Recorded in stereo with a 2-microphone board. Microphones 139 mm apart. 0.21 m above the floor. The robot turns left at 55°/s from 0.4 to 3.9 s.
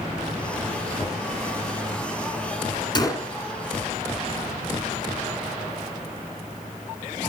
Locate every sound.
1.0 s knocking: 5° right (ahead or behind), 5 m; by 1.3 s 15° left (ahead or behind), 5 m
3.0 s a gunshot: 30° left (ahead or behind), 1.5 m; by 3.3 s 15° left (ahead or behind), 1.5 m